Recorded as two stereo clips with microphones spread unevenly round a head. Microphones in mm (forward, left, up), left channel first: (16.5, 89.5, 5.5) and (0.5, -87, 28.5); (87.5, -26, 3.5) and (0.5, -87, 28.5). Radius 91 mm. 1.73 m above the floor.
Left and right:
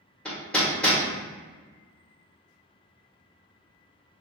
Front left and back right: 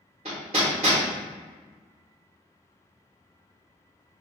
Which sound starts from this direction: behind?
Hammering, at 0.2 s.